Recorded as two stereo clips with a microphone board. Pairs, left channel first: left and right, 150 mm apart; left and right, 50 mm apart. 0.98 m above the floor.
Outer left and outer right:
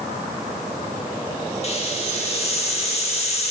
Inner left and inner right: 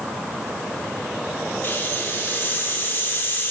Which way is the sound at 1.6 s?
40° left (ahead or behind).